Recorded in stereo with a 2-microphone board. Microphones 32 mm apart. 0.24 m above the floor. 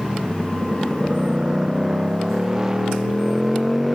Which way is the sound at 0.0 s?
25° right (ahead or behind).